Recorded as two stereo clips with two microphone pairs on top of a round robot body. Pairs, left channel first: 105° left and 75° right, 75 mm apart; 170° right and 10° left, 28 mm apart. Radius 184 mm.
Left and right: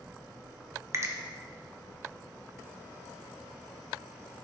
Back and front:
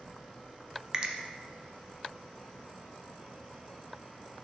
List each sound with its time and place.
0.9 s a finger snap: 35° right, 0.5 m